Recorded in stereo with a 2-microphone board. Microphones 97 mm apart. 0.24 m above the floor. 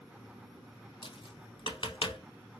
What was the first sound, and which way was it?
Tapping, 65° left (ahead or behind).